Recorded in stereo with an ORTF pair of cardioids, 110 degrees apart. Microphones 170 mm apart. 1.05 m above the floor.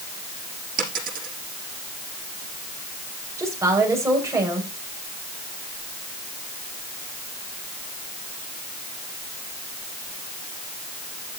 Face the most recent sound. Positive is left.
turn(degrees=-15)